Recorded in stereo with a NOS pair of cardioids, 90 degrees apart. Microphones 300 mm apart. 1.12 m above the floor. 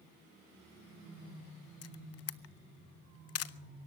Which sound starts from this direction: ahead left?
A camera shutter, at 1.8 s.